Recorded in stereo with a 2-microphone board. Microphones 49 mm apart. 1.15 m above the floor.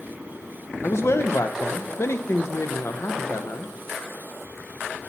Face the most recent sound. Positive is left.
turn(degrees=60)  # may be behind; listen again after turning